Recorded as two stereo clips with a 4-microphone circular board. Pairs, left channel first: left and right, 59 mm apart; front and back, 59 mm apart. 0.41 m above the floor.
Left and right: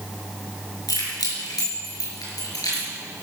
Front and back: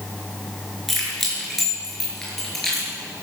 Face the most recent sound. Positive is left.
turn(degrees=85)